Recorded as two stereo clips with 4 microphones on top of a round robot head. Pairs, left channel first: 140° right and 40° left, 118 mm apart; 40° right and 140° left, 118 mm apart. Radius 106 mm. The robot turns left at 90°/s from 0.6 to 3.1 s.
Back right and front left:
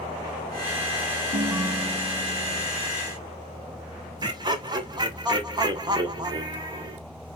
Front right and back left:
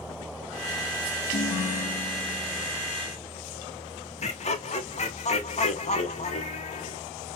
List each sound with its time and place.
1.3 s a ringtone: 5° left, 0.7 m; by 2.7 s 120° right, 0.7 m
4.2 s laughter: 15° right, 1.1 m